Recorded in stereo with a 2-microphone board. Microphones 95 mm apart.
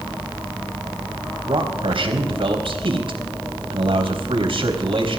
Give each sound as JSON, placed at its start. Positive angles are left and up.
{"t": 1.5, "sound": "a man speaking", "side_deg": -70, "distance_m": 3.5}